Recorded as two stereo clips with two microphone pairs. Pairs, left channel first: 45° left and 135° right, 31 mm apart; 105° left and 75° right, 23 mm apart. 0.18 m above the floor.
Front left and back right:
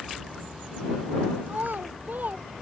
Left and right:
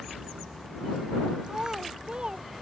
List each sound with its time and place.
1.5 s a child speaking: 125° right; by 2.6 s 115° right